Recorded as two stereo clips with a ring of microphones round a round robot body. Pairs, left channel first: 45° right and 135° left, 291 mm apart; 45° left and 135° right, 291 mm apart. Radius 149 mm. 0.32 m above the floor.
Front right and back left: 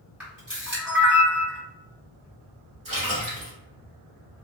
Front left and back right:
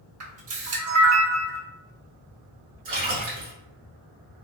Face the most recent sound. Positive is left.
turn(degrees=-155)